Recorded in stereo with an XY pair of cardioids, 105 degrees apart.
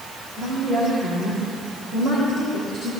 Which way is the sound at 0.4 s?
50° right.